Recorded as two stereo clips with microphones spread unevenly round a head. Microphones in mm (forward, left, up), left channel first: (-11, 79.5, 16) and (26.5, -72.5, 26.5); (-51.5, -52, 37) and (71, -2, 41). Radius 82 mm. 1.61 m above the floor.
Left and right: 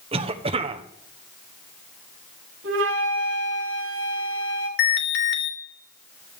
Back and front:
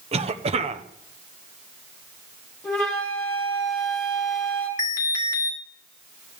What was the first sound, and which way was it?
A cough, 20° right.